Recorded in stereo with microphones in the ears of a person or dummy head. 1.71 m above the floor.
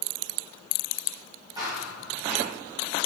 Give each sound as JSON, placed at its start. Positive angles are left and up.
{"t": 1.6, "sound": "running footsteps", "side_deg": -25, "distance_m": 5.0}